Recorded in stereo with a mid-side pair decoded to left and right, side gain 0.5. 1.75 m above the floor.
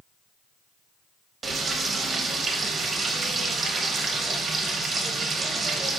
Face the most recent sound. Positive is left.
turn(degrees=-40)